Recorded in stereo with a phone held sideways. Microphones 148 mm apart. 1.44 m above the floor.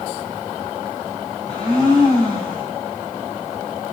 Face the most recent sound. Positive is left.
turn(degrees=5)  # may be behind; listen again after turning